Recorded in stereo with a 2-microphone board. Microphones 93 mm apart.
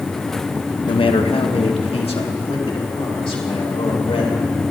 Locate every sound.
0.9 s a man speaking: 60° left (ahead or behind), 0.7 m; by 4.5 s 80° left, 5 m